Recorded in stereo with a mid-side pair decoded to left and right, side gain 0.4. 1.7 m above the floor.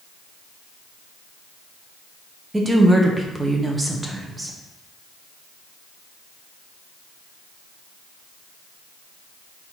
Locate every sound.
2.5 s a woman speaking: 20° right, 1.1 m